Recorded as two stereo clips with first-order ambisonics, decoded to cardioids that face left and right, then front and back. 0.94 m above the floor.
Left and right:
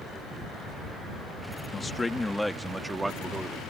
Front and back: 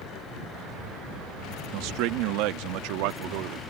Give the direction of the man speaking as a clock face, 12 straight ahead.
7 o'clock.